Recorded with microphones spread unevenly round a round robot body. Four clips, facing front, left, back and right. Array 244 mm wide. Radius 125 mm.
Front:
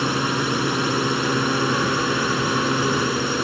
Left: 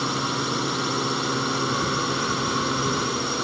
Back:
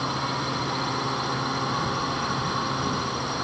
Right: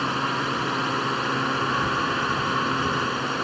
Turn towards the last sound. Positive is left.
turn(degrees=0)